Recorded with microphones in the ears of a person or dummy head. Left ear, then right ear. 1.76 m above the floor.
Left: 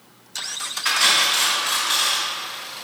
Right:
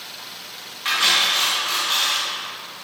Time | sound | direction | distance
0.8 | cutlery clinking | 15° left (ahead or behind) | 1.7 m